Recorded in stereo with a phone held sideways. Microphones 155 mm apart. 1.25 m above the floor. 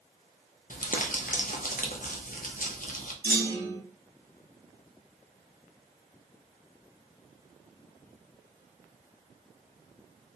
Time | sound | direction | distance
0.7 | crumpling | 60° left (ahead or behind) | 0.5 m
3.2 | a clunk | 75° right (ahead or behind) | 1.8 m